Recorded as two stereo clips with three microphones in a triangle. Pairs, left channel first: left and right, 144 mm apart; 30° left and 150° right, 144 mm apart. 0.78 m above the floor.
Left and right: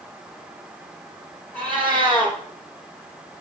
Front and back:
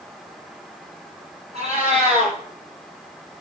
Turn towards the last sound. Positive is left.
turn(degrees=170)